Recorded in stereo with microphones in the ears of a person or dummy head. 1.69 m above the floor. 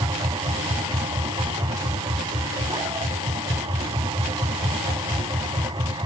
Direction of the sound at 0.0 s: 20° right (ahead or behind).